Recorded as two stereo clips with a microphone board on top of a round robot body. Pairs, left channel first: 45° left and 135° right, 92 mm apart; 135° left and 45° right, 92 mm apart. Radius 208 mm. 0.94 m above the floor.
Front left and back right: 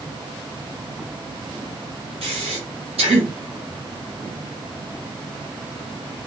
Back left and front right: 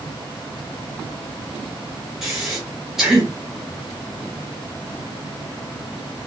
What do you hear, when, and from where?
2.2 s breathing: 130° right, 1.4 m